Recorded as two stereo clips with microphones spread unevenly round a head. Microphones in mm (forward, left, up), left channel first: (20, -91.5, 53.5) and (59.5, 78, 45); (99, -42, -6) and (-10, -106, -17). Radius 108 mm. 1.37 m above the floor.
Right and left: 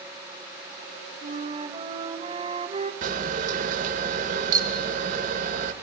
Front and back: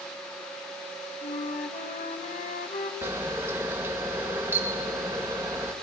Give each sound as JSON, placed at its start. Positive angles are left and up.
{"t": 1.2, "sound": "a flute", "azimuth_deg": 15, "distance_m": 2.0}
{"t": 3.0, "sound": "a camera shutter", "azimuth_deg": 130, "distance_m": 1.2}